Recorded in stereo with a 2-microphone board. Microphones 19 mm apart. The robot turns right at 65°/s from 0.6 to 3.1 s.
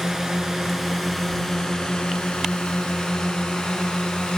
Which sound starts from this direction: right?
A drone, at 0.0 s.